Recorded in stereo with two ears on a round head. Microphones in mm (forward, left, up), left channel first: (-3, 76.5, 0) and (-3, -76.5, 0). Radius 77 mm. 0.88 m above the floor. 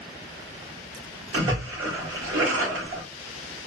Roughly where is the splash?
Right.